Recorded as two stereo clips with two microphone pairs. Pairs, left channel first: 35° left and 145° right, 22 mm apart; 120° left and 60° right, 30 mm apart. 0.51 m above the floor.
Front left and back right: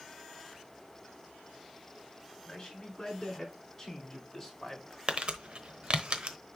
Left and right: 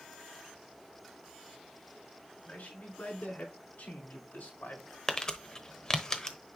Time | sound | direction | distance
2.5 | a man speaking | 95° left | 6 m
5.1 | crumpling | 170° right | 1.0 m